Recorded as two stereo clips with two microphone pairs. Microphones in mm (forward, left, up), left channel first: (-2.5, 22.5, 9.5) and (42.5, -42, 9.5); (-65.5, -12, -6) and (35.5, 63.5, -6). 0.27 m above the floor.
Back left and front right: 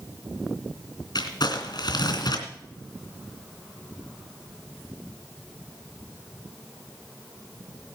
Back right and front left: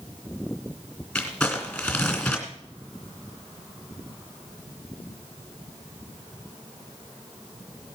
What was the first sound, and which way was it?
Crumpling, 135° left.